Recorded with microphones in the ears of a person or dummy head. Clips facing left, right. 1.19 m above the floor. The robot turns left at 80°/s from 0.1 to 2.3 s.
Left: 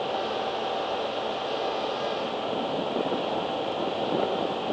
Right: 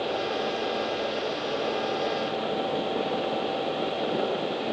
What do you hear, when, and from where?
Only background noise.